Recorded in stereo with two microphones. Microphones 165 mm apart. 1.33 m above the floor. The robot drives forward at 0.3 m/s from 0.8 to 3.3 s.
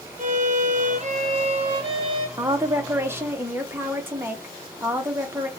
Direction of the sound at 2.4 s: 20° right (ahead or behind).